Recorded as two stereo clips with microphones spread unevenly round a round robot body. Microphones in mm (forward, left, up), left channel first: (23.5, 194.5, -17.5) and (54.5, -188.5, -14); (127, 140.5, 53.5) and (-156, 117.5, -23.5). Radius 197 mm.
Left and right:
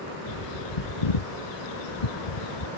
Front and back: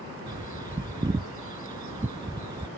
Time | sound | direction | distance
0.3 | a bird | 105° left | ?